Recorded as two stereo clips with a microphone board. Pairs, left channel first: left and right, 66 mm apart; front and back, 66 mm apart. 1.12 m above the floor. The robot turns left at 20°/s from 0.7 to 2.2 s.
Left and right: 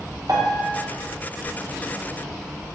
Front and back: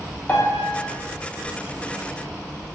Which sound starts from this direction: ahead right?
A piano, at 0.3 s.